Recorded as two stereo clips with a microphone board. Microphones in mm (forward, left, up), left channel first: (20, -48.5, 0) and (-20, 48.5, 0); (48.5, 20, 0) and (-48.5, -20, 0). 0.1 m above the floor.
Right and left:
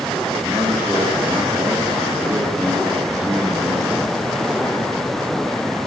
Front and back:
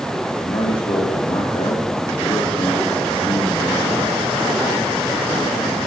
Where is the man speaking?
55° left, 7.5 m.